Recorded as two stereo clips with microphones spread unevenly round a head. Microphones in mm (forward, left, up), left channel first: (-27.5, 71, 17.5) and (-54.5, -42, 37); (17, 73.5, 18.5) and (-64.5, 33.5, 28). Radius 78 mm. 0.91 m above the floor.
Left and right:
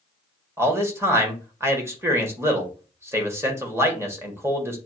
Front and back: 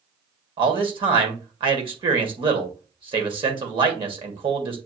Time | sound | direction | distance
0.6 | a man speaking | 175° right | 1.8 m